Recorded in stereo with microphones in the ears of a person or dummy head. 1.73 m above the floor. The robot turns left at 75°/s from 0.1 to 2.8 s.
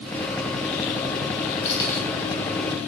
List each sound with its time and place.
1.6 s keys jangling: 25° left (ahead or behind), 2 m; by 2.0 s centre (ahead or behind), 2 m